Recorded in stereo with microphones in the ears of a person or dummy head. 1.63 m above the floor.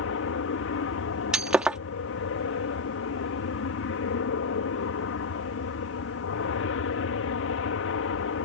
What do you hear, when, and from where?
0.0 s an aircraft: 65° left (ahead or behind)
1.3 s breaking glass: 5° right (ahead or behind)